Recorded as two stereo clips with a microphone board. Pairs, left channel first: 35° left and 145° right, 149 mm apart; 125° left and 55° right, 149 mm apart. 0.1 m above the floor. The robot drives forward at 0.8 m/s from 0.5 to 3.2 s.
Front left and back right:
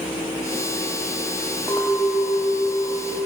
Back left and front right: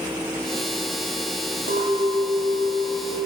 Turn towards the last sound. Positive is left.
turn(degrees=-70)